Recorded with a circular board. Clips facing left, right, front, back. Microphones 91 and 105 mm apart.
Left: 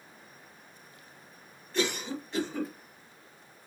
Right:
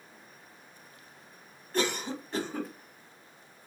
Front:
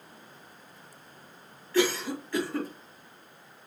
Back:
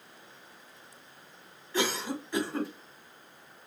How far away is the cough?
About 1.6 m.